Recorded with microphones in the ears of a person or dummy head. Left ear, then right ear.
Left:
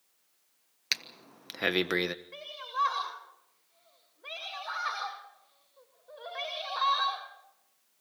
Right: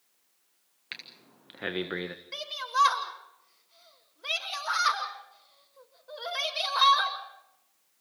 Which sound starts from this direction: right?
A shout, at 2.3 s.